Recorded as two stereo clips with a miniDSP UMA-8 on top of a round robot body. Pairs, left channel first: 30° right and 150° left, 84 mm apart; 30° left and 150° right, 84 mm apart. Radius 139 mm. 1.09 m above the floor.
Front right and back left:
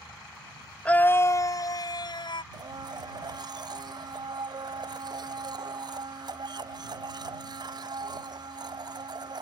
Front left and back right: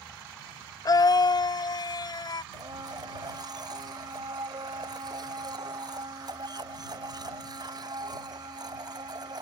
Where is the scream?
40° left; by 2.4 s 5° right.